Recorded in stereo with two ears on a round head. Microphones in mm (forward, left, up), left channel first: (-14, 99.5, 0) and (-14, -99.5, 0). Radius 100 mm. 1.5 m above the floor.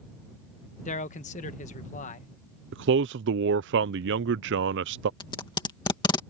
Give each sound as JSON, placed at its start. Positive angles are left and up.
{"t": 0.8, "sound": "a man speaking", "side_deg": 30}
{"t": 2.7, "sound": "a man speaking", "side_deg": -55}
{"t": 5.2, "sound": "tape being pulled", "side_deg": 20}